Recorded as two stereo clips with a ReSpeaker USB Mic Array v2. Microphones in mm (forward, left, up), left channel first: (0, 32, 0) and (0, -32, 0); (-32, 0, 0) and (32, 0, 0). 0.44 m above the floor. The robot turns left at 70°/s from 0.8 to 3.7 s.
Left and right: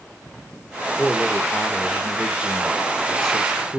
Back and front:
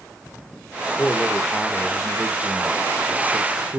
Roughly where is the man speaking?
Behind.